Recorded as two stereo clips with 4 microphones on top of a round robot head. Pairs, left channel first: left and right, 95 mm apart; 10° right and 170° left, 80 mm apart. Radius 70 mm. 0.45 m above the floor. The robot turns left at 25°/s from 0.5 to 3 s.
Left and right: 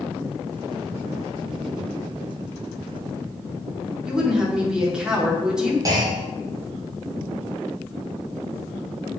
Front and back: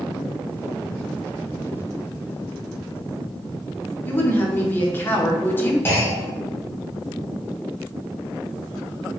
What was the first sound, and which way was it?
A woman speaking, 20° right.